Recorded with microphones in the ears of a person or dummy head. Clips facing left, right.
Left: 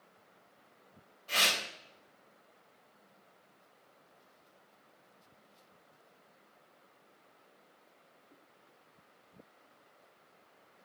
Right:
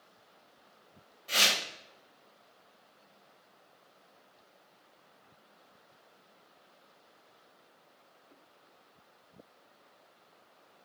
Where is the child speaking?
No child speaking in this recording.